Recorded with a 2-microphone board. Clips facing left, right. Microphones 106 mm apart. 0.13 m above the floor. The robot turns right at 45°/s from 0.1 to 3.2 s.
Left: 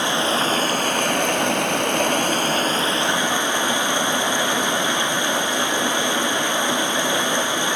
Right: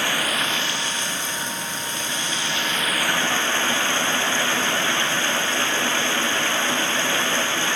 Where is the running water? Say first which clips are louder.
Left 5 dB; 20° left, 1.5 m; by 7.8 s 160° left, 1.5 m.